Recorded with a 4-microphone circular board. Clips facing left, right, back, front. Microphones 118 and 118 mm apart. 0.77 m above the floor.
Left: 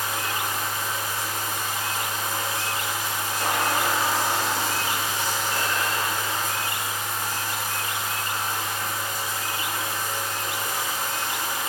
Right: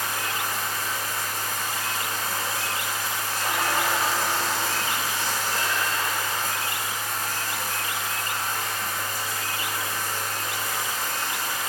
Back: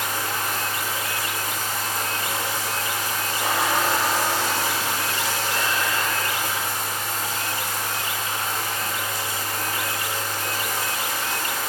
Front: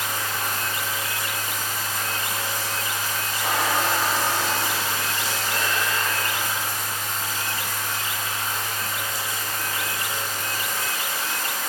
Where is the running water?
155° left, 2.5 m.